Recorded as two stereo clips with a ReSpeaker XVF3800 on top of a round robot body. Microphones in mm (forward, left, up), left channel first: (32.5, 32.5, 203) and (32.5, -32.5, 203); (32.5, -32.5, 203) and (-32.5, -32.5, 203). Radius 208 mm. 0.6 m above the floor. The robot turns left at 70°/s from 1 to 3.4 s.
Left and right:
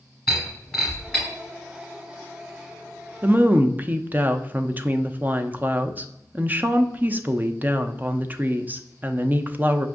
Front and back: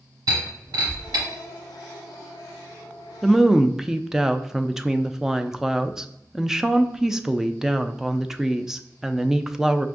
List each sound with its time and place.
0.3 s breaking glass: 175° left, 0.7 m; by 1.2 s 160° left, 0.7 m
3.2 s a woman speaking: 90° right, 0.5 m; by 9.9 s 105° right, 0.5 m